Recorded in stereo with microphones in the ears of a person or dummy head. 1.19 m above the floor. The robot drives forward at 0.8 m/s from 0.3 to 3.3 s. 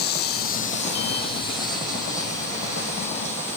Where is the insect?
50° left (ahead or behind); by 3.6 s 15° left (ahead or behind).